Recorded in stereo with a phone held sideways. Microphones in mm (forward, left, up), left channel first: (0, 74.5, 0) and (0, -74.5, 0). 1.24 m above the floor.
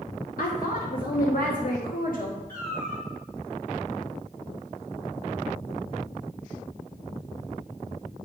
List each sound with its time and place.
0.4 s a woman speaking: 70° left (ahead or behind), 1.1 m
2.5 s a cat meowing: 75° left (ahead or behind), 4 m